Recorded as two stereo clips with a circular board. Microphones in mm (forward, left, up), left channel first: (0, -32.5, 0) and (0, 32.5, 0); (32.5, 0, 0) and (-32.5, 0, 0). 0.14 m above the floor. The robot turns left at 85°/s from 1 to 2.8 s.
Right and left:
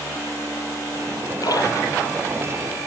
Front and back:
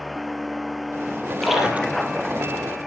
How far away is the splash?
About 4 m.